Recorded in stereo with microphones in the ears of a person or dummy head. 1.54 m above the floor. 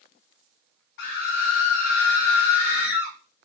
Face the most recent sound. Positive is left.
turn(degrees=70)  # may be behind; listen again after turning